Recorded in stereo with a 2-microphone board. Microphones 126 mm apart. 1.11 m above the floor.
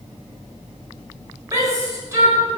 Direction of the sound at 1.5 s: 25° right (ahead or behind).